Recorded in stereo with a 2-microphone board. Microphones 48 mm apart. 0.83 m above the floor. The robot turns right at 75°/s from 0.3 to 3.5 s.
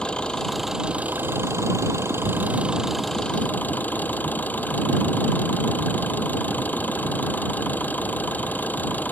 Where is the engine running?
160° left; by 9.1 s 40° left.